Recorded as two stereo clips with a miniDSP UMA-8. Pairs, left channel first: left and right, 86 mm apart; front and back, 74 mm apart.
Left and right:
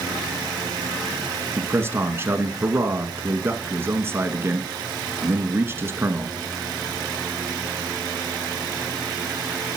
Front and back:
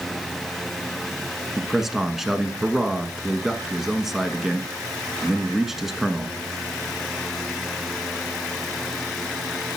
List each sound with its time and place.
1.6 s a man speaking: 100° right, 1.2 m